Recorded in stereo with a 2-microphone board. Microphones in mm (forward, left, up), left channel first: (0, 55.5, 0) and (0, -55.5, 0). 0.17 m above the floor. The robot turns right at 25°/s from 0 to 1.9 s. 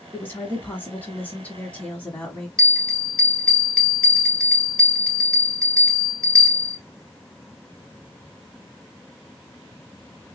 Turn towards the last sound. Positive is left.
turn(degrees=10)  # may be behind; listen again after turning